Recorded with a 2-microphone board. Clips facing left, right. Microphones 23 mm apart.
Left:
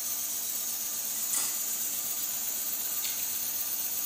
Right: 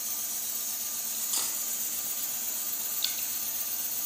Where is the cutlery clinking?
50° right (ahead or behind), 1.7 m.